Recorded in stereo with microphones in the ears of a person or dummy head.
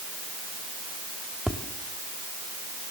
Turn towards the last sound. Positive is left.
turn(degrees=0)  # may be behind; listen again after turning